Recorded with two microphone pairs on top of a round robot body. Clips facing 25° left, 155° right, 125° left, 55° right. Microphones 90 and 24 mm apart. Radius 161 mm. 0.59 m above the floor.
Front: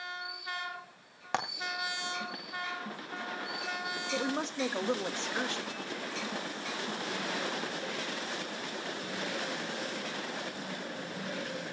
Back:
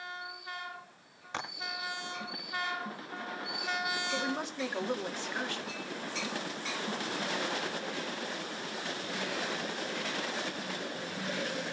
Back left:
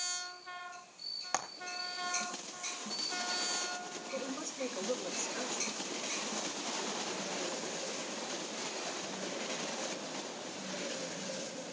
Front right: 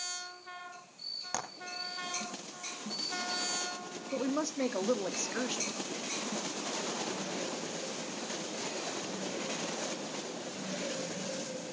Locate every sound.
1.3 s frying: 45° left, 3 m
4.1 s a woman speaking: 45° right, 1.9 m